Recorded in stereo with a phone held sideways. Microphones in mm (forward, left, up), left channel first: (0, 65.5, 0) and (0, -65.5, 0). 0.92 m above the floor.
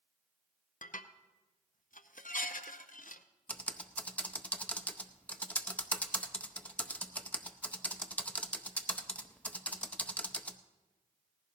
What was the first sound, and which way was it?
Dishes clattering, 75° left (ahead or behind).